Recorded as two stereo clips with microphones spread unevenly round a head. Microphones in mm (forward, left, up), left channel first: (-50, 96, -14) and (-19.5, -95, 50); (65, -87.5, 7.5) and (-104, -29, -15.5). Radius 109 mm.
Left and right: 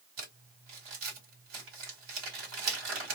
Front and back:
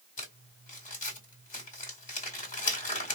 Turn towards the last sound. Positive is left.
turn(degrees=-60)